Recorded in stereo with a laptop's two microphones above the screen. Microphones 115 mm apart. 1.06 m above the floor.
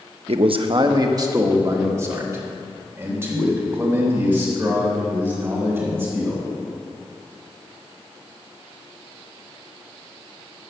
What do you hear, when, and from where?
0.3 s a man speaking: 70° right (ahead or behind), 0.7 m; by 6.4 s 15° right (ahead or behind), 6.5 m